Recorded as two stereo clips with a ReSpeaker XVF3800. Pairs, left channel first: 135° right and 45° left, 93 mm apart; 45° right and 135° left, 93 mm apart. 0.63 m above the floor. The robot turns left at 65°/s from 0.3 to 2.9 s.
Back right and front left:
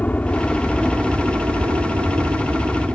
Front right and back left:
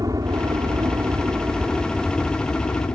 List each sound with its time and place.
0.0 s a helicopter: 160° left; by 3.0 s 10° right